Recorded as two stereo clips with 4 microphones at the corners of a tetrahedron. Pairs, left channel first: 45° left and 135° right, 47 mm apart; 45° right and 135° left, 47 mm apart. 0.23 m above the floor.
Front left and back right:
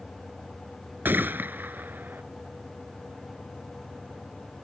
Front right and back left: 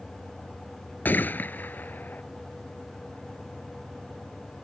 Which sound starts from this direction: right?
A gunshot, at 1.1 s.